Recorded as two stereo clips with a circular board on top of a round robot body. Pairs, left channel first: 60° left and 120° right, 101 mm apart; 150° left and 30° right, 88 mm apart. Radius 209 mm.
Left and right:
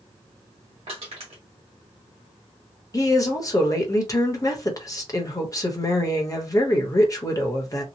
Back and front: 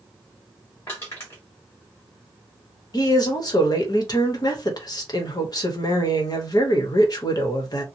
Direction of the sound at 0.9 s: 145° right.